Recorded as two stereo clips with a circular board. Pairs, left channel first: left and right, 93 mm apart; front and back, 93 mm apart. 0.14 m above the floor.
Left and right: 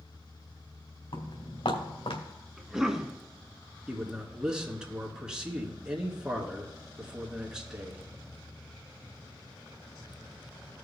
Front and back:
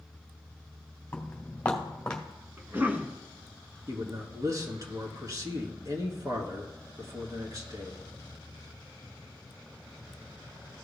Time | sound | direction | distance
1.1 | footsteps | 75° left | 3 m
2.6 | a cough | 165° right | 1.0 m
3.9 | a man speaking | 165° right | 2 m